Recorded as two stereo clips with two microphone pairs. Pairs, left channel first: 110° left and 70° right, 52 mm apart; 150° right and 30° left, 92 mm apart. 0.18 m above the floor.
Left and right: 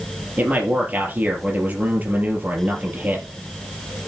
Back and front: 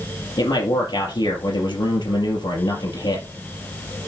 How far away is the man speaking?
About 3.5 m.